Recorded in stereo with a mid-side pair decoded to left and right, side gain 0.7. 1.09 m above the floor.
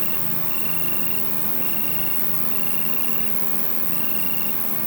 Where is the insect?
5° right.